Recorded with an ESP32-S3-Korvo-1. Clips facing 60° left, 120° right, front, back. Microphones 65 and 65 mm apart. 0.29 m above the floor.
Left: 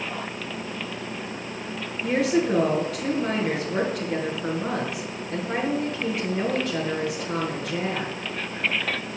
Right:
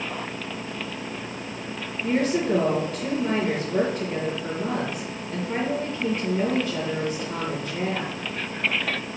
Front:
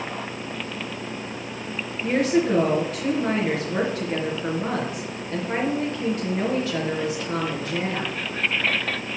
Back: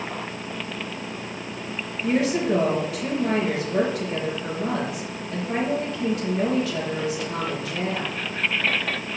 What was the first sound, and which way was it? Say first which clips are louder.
A woman speaking: left 1 dB, front 1 dB; 50° left.